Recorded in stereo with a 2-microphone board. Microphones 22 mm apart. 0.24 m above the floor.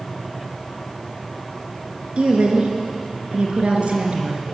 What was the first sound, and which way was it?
A woman speaking, 65° right (ahead or behind).